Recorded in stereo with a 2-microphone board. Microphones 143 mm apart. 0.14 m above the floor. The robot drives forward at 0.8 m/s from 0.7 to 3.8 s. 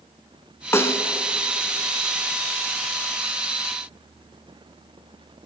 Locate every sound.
0.7 s a snare drum: 20° left (ahead or behind), 1.3 m